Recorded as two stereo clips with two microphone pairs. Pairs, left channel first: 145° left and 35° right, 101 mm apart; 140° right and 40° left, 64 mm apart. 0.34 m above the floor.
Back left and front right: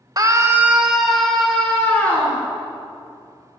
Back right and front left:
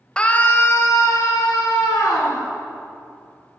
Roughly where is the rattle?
I don't hear a rattle.